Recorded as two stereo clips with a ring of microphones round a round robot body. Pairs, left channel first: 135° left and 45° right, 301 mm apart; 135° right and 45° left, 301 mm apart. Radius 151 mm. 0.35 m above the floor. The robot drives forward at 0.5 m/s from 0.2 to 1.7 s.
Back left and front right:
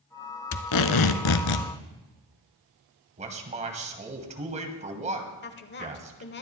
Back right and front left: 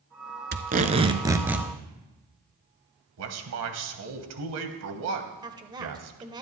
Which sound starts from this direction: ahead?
A man speaking, at 3.2 s.